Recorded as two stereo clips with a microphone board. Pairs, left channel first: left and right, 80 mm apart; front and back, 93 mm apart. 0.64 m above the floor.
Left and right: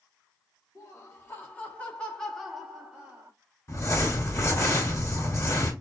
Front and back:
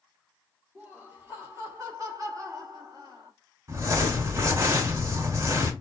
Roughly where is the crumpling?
Behind left.